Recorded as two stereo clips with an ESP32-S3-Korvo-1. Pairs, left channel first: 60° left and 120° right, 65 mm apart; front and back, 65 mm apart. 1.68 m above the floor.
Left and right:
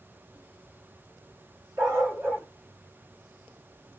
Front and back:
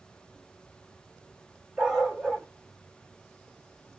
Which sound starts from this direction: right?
A dog barking, at 1.8 s.